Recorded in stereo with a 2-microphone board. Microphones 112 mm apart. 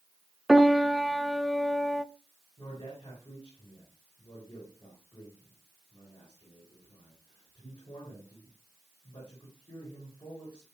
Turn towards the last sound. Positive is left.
turn(degrees=45)  # may be behind; listen again after turning